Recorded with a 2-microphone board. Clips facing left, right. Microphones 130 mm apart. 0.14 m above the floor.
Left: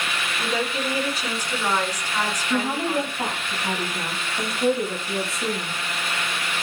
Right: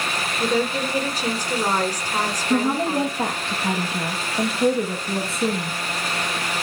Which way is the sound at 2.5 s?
25° right (ahead or behind).